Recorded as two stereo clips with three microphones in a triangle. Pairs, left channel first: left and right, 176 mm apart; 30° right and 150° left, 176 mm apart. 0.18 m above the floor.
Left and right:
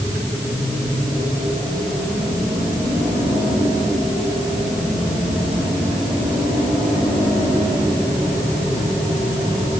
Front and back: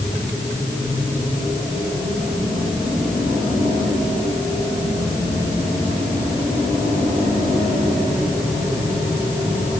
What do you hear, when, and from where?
Only background noise.